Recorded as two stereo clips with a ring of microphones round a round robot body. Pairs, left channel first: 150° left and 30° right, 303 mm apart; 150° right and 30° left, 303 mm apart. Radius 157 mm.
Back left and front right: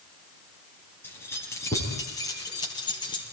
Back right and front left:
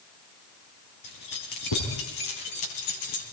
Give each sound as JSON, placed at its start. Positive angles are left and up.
{"t": 1.0, "sound": "keys jangling", "azimuth_deg": -125, "distance_m": 7.5}